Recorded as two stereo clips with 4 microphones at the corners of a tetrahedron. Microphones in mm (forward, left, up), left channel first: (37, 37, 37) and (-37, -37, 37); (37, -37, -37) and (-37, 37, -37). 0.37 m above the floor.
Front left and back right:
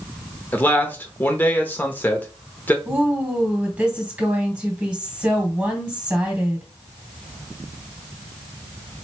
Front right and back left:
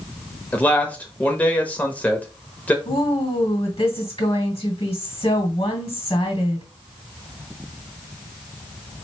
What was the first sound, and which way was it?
A man speaking, 5° left.